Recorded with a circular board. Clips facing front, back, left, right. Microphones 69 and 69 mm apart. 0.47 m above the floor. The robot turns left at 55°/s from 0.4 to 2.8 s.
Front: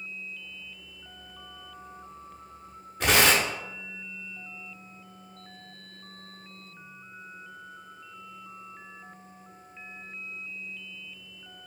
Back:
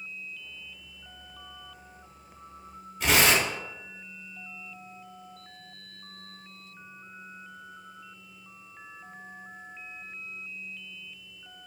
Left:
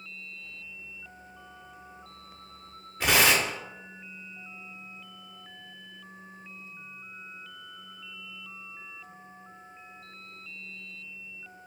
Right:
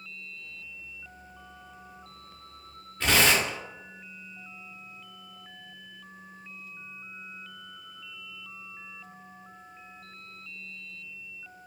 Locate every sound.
3.0 s tearing paper: 20° left, 0.8 m